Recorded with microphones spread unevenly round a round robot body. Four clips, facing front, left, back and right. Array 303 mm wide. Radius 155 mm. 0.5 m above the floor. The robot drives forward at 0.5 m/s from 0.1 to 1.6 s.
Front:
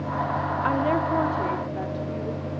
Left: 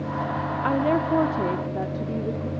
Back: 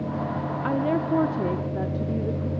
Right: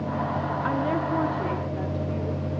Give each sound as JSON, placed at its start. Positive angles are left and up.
{"t": 0.6, "sound": "a woman speaking", "azimuth_deg": 75, "distance_m": 0.9}